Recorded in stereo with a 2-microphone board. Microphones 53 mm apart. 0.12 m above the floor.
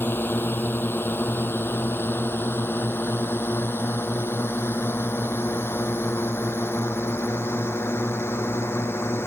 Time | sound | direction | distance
0.0 | a drone | 40° left (ahead or behind) | ?